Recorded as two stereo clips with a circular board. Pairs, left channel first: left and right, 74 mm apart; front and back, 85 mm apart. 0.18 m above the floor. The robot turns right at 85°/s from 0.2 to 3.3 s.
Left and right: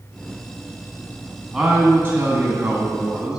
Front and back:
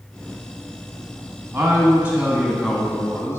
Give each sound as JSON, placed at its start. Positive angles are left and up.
{"t": 1.5, "sound": "a man speaking", "azimuth_deg": -170, "distance_m": 1.2}